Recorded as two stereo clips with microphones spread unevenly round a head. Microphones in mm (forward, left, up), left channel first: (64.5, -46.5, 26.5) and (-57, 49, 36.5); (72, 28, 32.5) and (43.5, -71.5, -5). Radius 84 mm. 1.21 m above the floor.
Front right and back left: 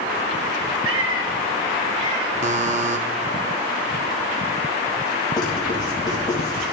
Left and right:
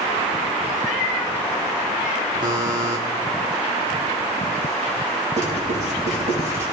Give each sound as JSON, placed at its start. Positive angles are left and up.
{"t": 0.8, "sound": "a cat meowing", "azimuth_deg": 145, "distance_m": 2.5}
{"t": 2.4, "sound": "a buzzer", "azimuth_deg": -175, "distance_m": 1.1}
{"t": 5.4, "sound": "writing", "azimuth_deg": -105, "distance_m": 5.5}